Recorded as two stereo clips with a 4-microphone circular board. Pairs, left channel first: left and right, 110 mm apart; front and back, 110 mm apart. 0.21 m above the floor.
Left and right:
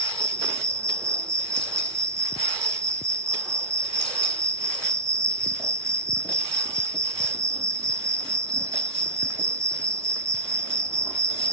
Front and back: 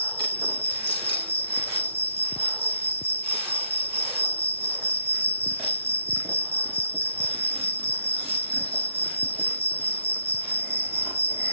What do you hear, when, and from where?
0.0 s an insect: 25° right, 0.9 m